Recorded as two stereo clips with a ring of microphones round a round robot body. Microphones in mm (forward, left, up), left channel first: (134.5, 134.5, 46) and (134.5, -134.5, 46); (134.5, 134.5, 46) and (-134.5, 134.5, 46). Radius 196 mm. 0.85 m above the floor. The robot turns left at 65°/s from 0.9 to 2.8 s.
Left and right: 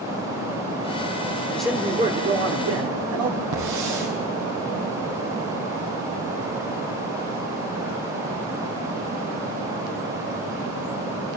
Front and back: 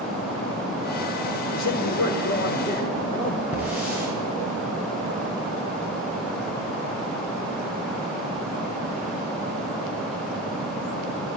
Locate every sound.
1.5 s a man speaking: 5° left, 3 m; by 3.4 s 75° right, 3 m
3.5 s a hiss: 95° right, 8.5 m